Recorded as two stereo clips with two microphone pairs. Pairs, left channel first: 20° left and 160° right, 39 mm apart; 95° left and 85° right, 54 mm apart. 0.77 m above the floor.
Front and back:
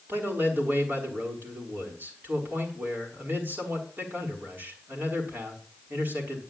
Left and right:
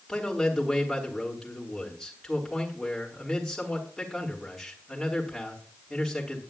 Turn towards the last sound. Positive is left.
turn(degrees=180)